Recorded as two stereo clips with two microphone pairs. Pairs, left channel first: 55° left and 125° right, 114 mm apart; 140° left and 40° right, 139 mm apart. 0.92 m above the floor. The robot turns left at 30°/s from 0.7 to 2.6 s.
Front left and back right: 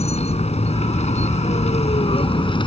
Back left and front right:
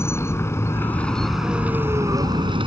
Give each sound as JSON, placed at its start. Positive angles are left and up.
{"t": 0.0, "sound": "a vehicle", "azimuth_deg": 70}